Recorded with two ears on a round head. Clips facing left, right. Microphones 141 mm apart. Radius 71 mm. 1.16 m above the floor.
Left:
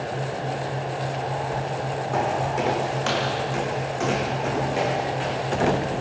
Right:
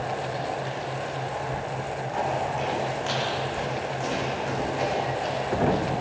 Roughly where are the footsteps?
Left.